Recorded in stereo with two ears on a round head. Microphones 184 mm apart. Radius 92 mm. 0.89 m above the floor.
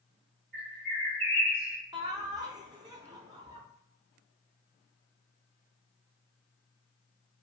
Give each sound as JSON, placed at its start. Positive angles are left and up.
{"t": 0.5, "sound": "a bird", "side_deg": -55, "distance_m": 1.8}
{"t": 1.9, "sound": "laughter", "side_deg": -20, "distance_m": 0.6}